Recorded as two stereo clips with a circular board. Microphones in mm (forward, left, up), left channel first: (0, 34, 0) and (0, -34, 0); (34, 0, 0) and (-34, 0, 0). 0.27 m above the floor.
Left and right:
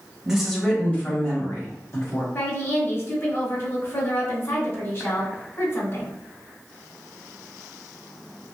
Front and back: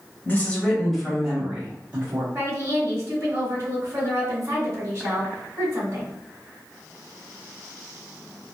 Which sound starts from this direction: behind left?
A woman speaking, at 2.3 s.